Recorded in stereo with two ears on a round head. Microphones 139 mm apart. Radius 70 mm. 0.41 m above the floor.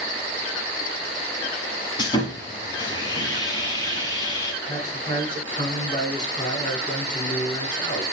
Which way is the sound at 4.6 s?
30° left (ahead or behind).